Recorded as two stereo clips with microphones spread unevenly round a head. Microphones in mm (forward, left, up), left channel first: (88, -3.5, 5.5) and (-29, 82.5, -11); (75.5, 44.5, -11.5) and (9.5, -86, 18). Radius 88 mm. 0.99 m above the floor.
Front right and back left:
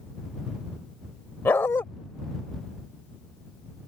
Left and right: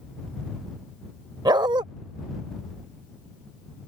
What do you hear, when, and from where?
1.4 s a dog barking: 100° right